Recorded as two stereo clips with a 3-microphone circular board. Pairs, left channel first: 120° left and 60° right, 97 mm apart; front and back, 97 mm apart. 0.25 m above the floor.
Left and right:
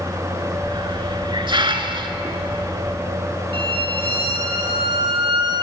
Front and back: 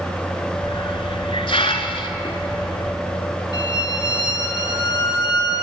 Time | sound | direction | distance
0.6 | a hiss | 25° right | 0.8 m
3.5 | a violin | 45° right | 1.7 m